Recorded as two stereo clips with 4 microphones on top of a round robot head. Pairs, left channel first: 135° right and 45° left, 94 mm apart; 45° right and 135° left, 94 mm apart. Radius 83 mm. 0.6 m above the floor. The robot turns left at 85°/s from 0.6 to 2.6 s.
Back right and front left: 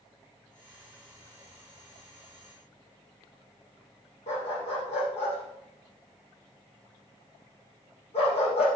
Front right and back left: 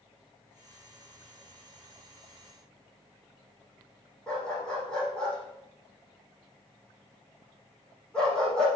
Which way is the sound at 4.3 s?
125° right.